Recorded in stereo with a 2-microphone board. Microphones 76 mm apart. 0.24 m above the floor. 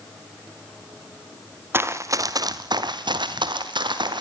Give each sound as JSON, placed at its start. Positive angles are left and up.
{"t": 1.7, "sound": "running footsteps", "side_deg": -30, "distance_m": 2.0}